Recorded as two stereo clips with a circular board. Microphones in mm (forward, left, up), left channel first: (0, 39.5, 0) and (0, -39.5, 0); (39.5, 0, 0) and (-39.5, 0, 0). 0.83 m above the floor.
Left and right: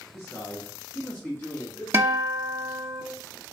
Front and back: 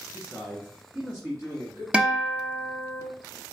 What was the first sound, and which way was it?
A man speaking, 105° left.